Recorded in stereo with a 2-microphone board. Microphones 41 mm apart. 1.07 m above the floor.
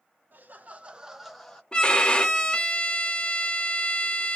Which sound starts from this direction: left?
A violin, at 1.7 s.